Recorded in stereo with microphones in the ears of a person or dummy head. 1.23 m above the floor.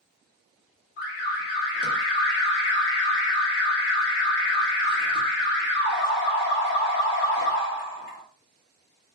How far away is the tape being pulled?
I don't hear tape being pulled.